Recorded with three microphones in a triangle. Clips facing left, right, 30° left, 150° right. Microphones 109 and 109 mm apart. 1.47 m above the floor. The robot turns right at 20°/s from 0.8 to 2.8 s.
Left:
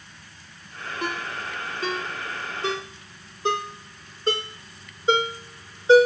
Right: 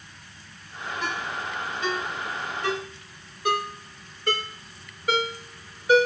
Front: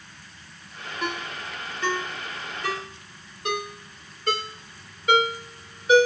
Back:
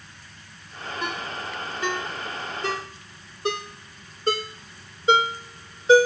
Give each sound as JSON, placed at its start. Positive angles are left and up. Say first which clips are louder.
{"t": 1.0, "sound": "a ringtone", "louder": "left 1 dB, front 1 dB", "azimuth_deg": 115, "distance_m": 2.0}